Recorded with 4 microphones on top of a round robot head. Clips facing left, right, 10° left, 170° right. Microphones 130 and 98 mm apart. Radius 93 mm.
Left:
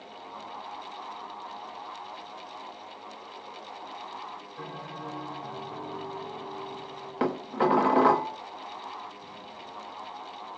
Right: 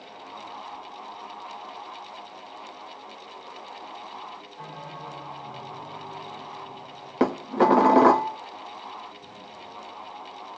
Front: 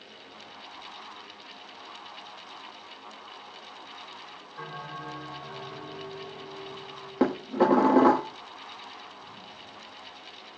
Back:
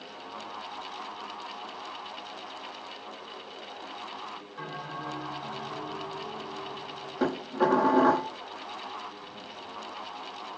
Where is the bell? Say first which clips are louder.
Even, even; 105° left, 4 m.